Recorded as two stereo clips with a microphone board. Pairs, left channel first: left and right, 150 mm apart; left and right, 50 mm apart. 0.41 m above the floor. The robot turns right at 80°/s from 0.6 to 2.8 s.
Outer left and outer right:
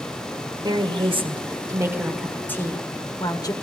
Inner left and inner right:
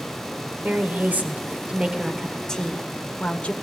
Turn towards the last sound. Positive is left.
turn(degrees=45)